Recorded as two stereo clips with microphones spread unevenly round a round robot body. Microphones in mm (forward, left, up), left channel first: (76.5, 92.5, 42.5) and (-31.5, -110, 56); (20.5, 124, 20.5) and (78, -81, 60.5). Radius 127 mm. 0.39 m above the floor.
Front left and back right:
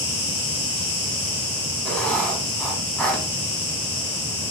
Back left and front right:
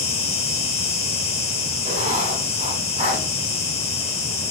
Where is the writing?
20° right, 1.0 m.